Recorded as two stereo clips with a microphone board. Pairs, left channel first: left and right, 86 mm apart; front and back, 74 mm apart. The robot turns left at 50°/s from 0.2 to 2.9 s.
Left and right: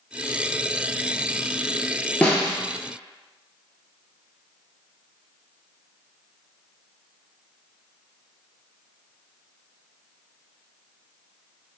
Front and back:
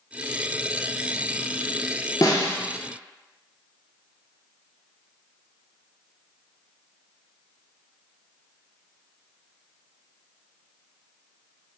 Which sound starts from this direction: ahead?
A snare drum, at 2.2 s.